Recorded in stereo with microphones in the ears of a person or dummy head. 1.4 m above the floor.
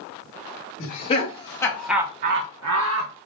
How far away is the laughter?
About 1.6 m.